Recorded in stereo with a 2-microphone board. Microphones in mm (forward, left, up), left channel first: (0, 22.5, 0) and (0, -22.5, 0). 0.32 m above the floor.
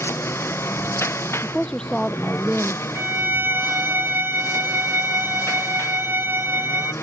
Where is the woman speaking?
20° left (ahead or behind).